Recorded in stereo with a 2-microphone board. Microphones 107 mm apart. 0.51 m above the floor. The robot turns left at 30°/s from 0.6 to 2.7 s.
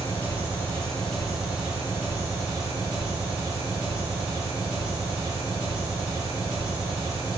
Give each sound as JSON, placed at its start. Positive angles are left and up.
{"t": 0.0, "sound": "an engine running", "azimuth_deg": 20, "distance_m": 0.9}